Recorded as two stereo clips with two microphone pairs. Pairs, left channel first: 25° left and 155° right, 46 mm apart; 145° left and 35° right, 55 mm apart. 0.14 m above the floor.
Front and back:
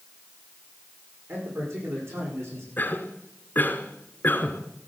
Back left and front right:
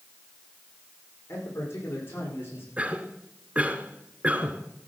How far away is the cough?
About 1.6 m.